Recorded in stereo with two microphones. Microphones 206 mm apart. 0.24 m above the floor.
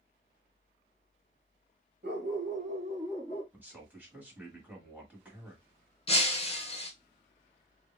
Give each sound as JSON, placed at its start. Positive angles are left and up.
{"t": 2.0, "sound": "a dog barking", "side_deg": -55, "distance_m": 1.1}
{"t": 3.5, "sound": "a man speaking", "side_deg": -5, "distance_m": 1.4}
{"t": 6.1, "sound": "breaking glass", "side_deg": 30, "distance_m": 0.8}